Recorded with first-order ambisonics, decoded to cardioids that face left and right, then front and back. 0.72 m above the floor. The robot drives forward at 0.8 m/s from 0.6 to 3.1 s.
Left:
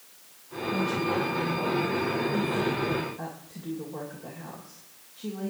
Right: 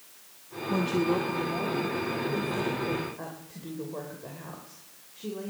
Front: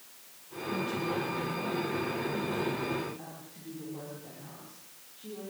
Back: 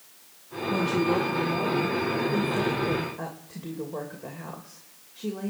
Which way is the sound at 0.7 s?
140° right.